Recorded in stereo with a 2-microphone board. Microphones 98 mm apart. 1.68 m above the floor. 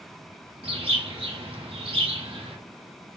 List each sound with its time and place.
0.6 s a bird: 70° right (ahead or behind), 1.7 m